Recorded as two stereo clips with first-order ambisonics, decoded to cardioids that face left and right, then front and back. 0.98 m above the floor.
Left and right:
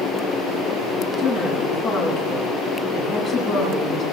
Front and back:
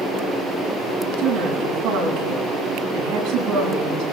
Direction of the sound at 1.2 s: 175° left.